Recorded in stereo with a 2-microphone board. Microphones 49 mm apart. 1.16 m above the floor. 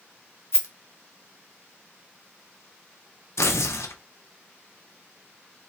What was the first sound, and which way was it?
A rattle, 70° left (ahead or behind).